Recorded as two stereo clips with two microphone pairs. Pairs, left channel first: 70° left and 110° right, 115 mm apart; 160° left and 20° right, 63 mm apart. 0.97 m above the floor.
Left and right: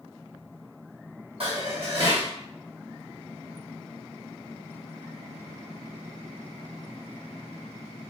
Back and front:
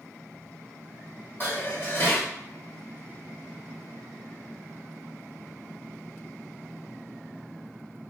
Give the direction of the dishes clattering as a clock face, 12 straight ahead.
5 o'clock.